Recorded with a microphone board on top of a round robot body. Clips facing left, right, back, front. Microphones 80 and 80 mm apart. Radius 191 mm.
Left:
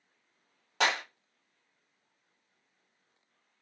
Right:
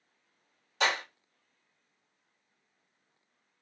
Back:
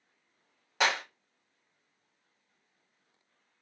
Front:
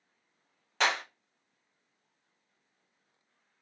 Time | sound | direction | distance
0.8 | a clap | 100° left | 1.3 m